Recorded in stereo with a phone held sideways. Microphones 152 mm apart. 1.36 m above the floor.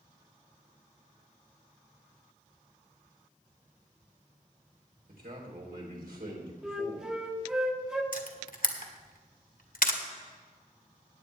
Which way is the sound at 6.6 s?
5° right (ahead or behind).